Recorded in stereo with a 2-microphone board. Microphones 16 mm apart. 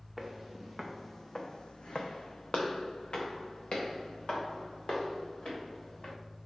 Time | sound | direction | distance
0.2 | footsteps | 15° right (ahead or behind) | 1.0 m